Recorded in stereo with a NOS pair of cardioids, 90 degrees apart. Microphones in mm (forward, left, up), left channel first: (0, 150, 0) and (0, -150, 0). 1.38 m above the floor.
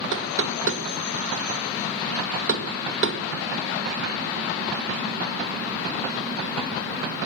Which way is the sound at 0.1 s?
45° right.